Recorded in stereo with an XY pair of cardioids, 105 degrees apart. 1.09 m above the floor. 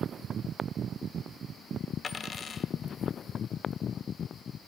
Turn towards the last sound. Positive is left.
turn(degrees=40)